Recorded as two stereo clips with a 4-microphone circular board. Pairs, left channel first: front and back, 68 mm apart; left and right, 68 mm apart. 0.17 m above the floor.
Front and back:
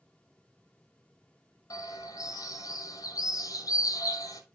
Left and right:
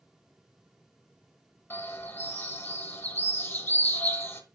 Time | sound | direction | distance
1.7 | a bird | 25° left | 1.3 m